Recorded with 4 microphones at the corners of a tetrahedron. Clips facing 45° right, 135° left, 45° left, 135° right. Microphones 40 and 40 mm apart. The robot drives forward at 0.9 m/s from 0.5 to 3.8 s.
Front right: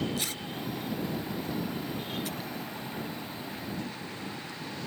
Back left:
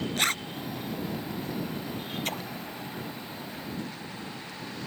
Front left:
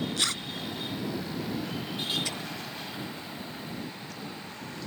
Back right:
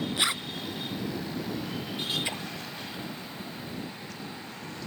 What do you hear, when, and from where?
0.2 s a zipper: 155° left
2.2 s a splash: 160° left